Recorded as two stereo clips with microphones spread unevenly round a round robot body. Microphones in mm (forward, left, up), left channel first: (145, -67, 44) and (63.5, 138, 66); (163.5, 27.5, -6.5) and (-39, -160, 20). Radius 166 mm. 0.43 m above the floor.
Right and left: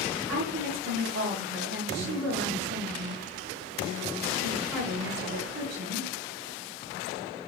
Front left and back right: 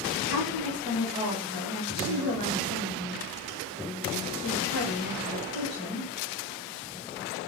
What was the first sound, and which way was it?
A woman speaking, 135° left.